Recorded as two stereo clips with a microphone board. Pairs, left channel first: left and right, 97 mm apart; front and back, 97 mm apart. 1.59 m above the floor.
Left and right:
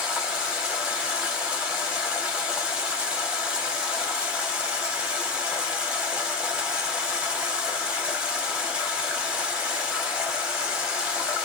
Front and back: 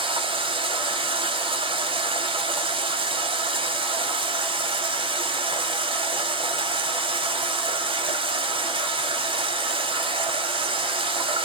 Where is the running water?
170° right, 0.7 m.